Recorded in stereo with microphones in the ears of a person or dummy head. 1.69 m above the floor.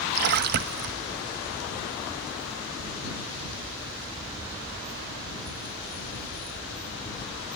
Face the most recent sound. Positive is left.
turn(degrees=-50)  # may be behind; listen again after turning